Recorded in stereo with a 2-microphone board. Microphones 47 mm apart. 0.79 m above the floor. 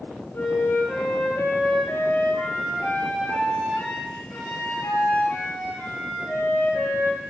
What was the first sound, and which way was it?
A flute, 55° left (ahead or behind).